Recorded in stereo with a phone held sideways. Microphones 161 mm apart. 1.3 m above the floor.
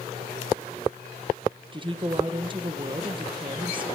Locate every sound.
1.7 s a woman speaking: 30° right (ahead or behind), 1.0 m